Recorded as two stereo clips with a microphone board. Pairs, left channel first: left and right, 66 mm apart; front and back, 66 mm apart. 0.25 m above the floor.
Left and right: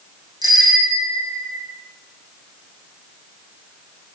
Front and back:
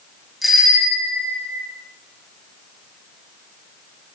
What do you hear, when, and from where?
0.4 s a bicycle bell: 90° right, 10 m; by 1.7 s 100° right, 9 m